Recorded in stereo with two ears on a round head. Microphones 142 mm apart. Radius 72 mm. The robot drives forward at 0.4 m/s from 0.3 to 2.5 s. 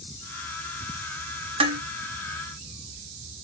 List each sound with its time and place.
1.6 s dishes clattering: 35° right (ahead or behind), 0.7 m